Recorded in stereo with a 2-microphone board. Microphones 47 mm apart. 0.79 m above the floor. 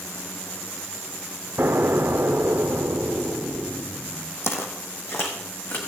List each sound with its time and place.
1.6 s an explosion: 60° right (ahead or behind), 0.6 m
4.4 s footsteps: 60° left (ahead or behind), 1.4 m; by 5.8 s 55° left (ahead or behind), 3 m